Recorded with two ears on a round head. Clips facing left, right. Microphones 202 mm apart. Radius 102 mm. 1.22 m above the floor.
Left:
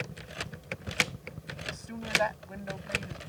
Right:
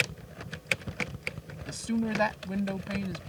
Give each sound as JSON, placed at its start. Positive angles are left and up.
{"t": 1.7, "sound": "a woman speaking", "side_deg": -45}